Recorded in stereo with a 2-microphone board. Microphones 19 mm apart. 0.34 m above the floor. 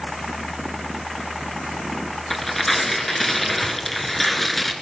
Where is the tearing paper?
15° left (ahead or behind), 1.8 m.